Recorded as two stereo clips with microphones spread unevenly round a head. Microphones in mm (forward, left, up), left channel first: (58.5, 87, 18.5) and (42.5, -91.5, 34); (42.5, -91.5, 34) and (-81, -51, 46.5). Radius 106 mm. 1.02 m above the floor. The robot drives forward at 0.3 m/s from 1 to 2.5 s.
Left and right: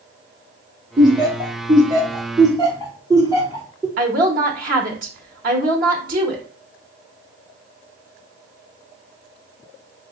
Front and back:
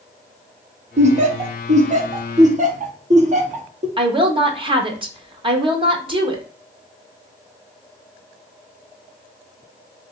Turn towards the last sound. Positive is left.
turn(degrees=-145)